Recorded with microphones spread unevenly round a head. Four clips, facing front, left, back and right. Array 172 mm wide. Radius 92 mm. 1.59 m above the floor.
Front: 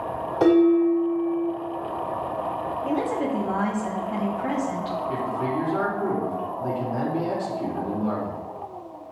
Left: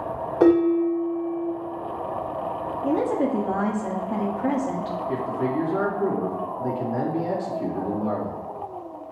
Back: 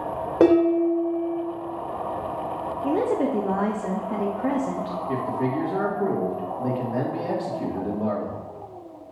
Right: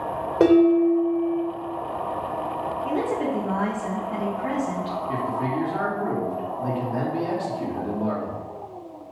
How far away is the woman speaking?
About 0.8 m.